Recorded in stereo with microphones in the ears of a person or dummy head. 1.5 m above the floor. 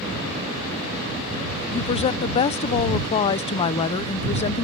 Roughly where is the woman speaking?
Left.